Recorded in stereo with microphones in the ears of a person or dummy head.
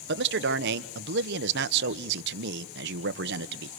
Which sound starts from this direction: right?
A man speaking, at 0.1 s.